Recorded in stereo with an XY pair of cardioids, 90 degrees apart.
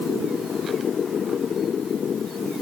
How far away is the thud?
I don't hear a thud.